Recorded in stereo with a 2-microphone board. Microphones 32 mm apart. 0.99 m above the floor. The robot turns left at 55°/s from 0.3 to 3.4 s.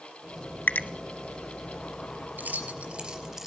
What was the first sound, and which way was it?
A finger snap, 70° left (ahead or behind).